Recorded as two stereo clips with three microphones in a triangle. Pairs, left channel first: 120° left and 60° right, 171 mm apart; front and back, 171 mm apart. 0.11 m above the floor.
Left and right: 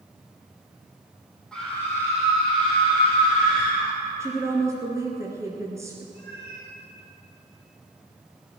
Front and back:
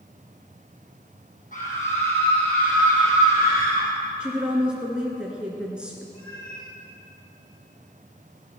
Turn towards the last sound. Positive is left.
turn(degrees=-70)